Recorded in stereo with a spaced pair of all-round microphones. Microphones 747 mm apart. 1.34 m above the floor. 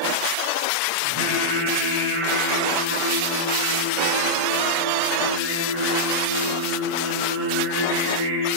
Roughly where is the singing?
Right.